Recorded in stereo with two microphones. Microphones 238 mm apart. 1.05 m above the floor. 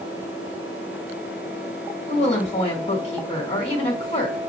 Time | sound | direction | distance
2.1 | a woman speaking | 25° left (ahead or behind) | 1.8 m